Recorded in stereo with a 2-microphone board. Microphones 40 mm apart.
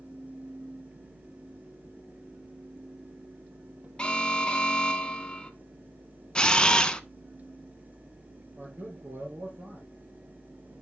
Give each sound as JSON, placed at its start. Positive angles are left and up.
{"t": 4.0, "sound": "an alarm", "side_deg": 20, "distance_m": 1.0}
{"t": 6.3, "sound": "a camera shutter", "side_deg": 20, "distance_m": 0.6}
{"t": 8.6, "sound": "a man speaking", "side_deg": -60, "distance_m": 2.5}